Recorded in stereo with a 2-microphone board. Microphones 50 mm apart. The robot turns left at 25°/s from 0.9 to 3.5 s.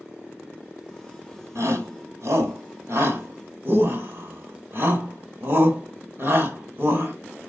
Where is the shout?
65° right (ahead or behind), 2.5 m; by 7.1 s 50° right (ahead or behind), 2.5 m.